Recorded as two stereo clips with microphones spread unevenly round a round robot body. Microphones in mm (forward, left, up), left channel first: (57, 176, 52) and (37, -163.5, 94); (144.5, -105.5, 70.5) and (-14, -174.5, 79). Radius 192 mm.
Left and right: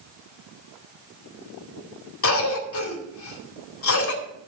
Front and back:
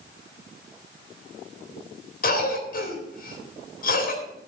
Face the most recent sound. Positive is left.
turn(degrees=50)